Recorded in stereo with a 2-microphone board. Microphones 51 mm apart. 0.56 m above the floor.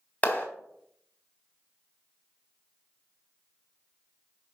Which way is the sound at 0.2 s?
25° left (ahead or behind).